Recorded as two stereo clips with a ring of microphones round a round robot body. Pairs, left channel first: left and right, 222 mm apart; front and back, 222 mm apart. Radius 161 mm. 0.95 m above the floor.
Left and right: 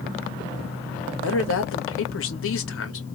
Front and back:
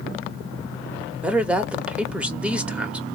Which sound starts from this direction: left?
A woman speaking, at 1.2 s.